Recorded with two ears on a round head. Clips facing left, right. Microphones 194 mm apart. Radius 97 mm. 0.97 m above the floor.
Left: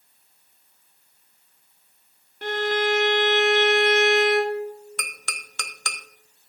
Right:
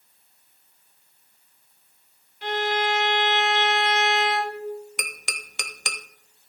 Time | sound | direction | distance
2.4 | a violin | 45° left (ahead or behind) | 1.8 m
5.0 | tapping | 15° right (ahead or behind) | 0.7 m